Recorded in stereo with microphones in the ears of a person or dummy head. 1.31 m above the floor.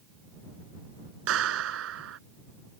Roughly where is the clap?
Right.